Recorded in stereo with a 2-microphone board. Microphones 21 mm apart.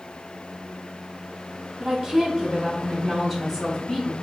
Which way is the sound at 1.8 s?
30° right (ahead or behind).